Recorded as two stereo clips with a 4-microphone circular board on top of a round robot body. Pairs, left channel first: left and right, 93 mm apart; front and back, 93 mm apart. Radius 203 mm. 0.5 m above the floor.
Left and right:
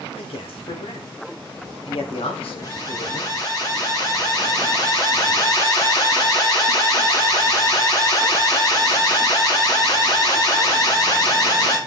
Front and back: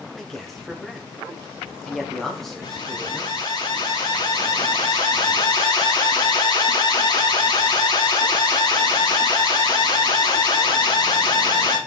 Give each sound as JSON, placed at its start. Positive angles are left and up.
{"t": 0.2, "sound": "a man speaking", "azimuth_deg": 85, "distance_m": 2.5}
{"t": 2.6, "sound": "an alarm", "azimuth_deg": 45, "distance_m": 7.5}